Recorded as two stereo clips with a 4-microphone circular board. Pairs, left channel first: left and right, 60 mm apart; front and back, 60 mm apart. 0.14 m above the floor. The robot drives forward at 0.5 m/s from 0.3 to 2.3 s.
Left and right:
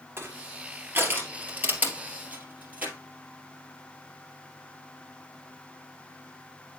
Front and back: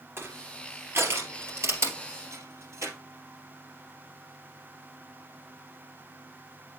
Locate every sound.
0.2 s crushing: 135° right, 2 m; by 2.9 s 150° right, 3 m